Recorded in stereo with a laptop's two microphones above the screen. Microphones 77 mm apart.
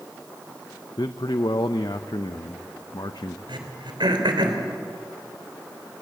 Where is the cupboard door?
I don't hear a cupboard door.